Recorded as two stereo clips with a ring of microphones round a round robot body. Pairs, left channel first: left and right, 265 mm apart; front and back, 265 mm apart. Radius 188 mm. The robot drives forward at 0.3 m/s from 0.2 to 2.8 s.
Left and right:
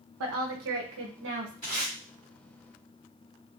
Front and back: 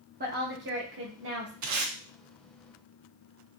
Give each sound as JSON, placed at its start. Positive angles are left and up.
{"t": 0.2, "sound": "a woman speaking", "azimuth_deg": -120, "distance_m": 1.0}
{"t": 1.6, "sound": "tape being pulled", "azimuth_deg": 165, "distance_m": 1.0}